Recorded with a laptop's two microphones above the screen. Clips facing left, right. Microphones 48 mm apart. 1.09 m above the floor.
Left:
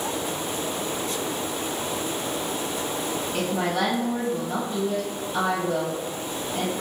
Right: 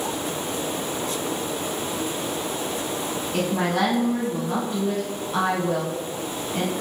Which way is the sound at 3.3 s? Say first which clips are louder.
Right 3 dB; 55° right (ahead or behind).